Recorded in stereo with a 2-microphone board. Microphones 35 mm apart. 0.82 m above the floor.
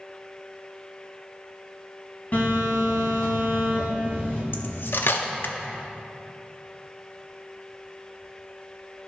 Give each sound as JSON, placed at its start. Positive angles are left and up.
{"t": 2.3, "sound": "a phone buzzing", "side_deg": 45, "distance_m": 1.9}
{"t": 4.5, "sound": "cutlery clinking", "side_deg": 85, "distance_m": 0.6}